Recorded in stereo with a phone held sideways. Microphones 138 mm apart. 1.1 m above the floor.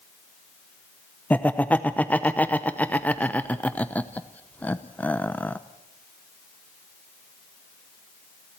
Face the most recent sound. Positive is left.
turn(degrees=10)  # may be behind; listen again after turning